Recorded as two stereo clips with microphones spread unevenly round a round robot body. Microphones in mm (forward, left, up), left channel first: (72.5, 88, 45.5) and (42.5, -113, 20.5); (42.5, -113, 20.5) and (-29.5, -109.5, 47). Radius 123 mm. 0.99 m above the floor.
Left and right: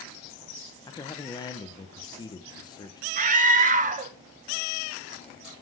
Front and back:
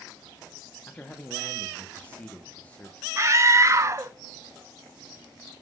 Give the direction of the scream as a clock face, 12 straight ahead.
4 o'clock.